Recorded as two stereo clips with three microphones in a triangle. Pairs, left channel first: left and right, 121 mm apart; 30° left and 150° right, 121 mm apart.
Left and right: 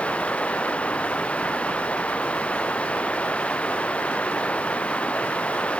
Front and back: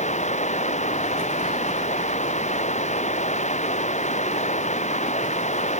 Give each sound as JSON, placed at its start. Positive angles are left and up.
{"t": 0.0, "sound": "running water", "azimuth_deg": 10}